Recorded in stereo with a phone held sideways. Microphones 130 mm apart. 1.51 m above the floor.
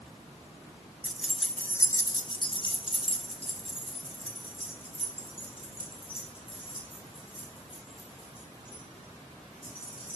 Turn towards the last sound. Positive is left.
turn(degrees=45)  # may be behind; listen again after turning